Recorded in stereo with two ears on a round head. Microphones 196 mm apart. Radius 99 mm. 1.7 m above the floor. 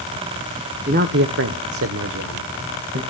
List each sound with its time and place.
0.9 s a man speaking: 40° right (ahead or behind), 1.0 m